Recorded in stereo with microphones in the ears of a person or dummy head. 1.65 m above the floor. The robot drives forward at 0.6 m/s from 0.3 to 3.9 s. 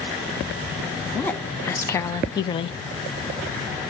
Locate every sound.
1.1 s a woman speaking: 10° left (ahead or behind), 1.4 m; by 2.8 s 35° left (ahead or behind), 0.5 m